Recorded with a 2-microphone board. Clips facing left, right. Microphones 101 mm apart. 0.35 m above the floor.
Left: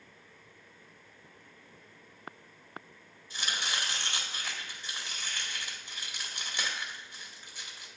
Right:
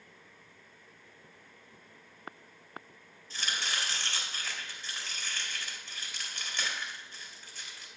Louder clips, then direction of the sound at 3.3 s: Left 1 dB; 15° left (ahead or behind).